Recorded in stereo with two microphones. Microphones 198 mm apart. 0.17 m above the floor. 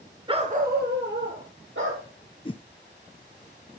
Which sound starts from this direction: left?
A whoosh, at 2.5 s.